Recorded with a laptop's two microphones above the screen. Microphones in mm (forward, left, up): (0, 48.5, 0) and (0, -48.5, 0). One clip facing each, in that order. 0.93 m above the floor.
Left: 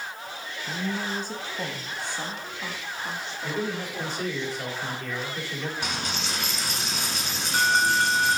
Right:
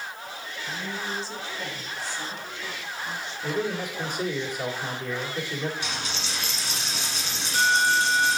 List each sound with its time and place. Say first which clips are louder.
0.7 s a woman speaking: left 3 dB; 35° left (ahead or behind), 1.1 m; by 4.2 s 70° left (ahead or behind), 2.5 m
3.4 s a man speaking: right 2 dB; 15° right (ahead or behind), 2 m
5.8 s a dropped coin: left 2 dB; 55° left (ahead or behind), 1.3 m